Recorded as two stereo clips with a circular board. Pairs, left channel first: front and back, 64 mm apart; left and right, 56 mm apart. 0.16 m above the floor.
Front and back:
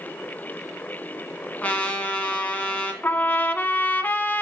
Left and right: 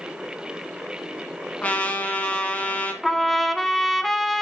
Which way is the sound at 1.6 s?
50° left.